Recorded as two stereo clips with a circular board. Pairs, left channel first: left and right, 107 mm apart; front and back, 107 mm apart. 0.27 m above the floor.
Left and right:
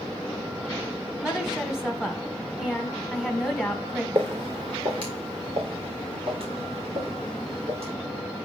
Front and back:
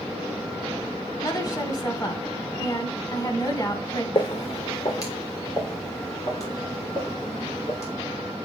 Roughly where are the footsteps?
Ahead right.